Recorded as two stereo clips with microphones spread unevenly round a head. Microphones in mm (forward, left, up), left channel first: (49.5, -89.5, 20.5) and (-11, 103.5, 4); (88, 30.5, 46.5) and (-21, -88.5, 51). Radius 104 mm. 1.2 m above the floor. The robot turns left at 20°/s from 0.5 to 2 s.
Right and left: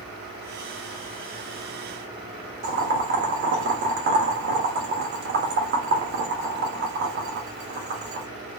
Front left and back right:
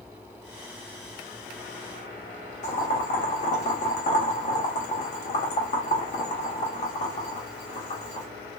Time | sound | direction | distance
2.6 | boiling | 85° left | 0.7 m